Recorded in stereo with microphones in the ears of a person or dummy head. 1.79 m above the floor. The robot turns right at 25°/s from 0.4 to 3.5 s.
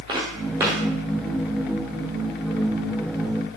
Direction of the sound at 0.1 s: 25° right (ahead or behind).